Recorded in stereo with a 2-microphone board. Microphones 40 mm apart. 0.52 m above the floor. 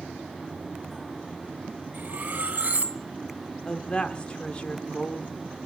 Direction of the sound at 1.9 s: 40° right (ahead or behind).